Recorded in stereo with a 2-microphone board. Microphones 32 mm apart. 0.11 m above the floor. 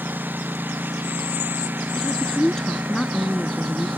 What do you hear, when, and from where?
0.0 s a lawn mower: 85° right; by 4.0 s 80° right
1.9 s a woman speaking: 20° left (ahead or behind)